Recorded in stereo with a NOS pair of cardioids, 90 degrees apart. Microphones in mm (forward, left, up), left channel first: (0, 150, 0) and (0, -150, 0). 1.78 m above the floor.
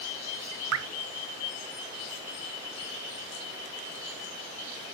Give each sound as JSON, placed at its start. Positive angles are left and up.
{"t": 0.7, "sound": "dripping", "azimuth_deg": -60, "distance_m": 1.3}